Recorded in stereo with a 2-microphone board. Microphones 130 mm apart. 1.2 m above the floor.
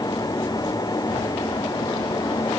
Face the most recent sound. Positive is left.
No sound to turn to.